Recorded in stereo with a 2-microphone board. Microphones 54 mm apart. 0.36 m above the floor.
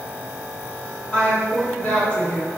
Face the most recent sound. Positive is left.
turn(degrees=25)  # may be behind; listen again after turning